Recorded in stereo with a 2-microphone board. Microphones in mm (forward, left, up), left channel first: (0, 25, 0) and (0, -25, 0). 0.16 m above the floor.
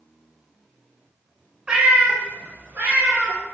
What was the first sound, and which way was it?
A cat meowing, 20° right (ahead or behind).